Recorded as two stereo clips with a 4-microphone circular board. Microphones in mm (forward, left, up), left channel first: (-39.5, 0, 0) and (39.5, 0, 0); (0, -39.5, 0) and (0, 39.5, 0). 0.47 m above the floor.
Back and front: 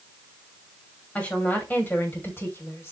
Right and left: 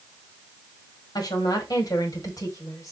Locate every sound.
1.1 s a woman speaking: 110° right, 3 m; by 2.9 s 130° right, 3 m